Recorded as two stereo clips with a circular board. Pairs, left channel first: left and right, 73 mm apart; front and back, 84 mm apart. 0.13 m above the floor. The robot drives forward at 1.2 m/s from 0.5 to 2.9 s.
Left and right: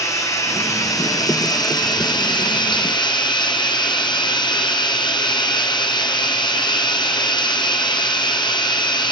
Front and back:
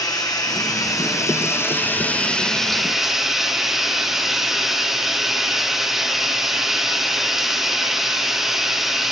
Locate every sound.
0.0 s running water: 45° left, 4 m; by 9.1 s 95° left, 2.5 m